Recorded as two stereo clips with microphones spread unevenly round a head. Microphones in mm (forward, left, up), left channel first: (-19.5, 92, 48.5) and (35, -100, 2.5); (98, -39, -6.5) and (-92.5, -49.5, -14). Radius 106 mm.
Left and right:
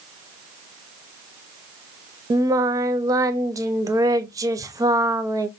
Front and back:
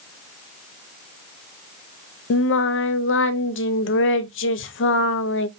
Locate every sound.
2.3 s singing: 10° right, 0.5 m